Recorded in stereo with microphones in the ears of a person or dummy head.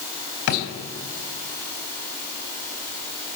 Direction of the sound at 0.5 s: 70° left (ahead or behind).